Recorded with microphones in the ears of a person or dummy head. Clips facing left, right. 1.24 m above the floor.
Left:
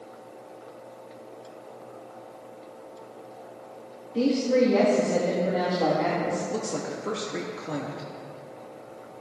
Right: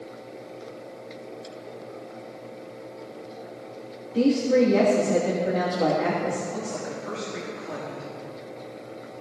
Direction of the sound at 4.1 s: 5° right (ahead or behind).